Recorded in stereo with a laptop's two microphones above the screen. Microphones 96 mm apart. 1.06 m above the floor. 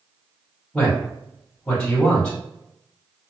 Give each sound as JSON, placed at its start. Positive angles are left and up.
{"t": 0.7, "sound": "a man speaking", "side_deg": 15, "distance_m": 1.4}